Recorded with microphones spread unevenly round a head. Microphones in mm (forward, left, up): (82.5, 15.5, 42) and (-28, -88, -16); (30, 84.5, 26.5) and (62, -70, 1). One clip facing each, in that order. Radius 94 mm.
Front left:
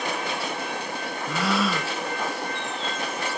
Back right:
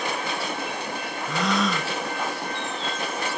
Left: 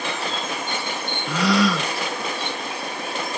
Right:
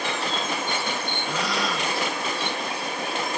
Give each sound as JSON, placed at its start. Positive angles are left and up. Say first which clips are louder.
{"t": 1.3, "sound": "a gasp", "louder": "even, left 9 dB", "azimuth_deg": 120}